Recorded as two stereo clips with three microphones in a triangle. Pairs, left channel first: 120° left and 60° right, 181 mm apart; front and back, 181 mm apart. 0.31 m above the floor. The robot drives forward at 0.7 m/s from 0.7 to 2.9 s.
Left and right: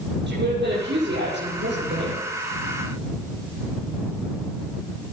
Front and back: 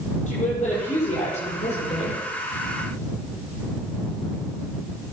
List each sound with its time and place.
0.3 s a woman speaking: 50° right, 7.5 m; by 2.2 s 55° right, 7 m